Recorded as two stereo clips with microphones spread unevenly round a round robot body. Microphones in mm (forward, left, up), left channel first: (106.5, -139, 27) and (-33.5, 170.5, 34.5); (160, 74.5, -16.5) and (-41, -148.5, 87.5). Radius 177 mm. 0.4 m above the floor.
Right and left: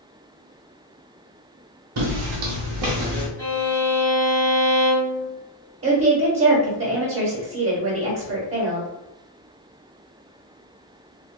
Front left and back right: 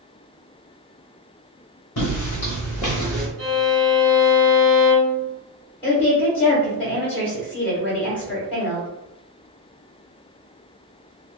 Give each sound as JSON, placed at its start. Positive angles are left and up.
{"t": 2.0, "sound": "footsteps", "azimuth_deg": 95, "distance_m": 0.9}
{"t": 3.4, "sound": "a violin", "azimuth_deg": -140, "distance_m": 1.6}
{"t": 5.8, "sound": "a woman speaking", "azimuth_deg": 100, "distance_m": 1.2}